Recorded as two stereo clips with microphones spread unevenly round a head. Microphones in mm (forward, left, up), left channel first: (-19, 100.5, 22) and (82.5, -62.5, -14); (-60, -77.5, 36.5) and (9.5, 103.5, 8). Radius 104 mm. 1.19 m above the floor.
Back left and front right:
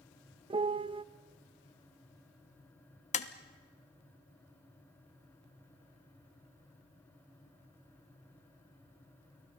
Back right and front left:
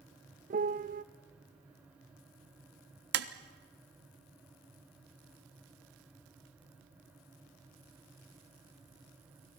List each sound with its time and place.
0.5 s a piano: 10° left, 0.5 m
3.1 s tapping: 65° left, 1.2 m